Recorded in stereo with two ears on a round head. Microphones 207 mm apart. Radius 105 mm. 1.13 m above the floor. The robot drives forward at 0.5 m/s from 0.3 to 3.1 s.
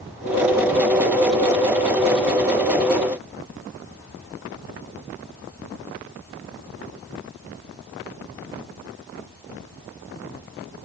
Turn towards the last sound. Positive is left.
No sound to turn to.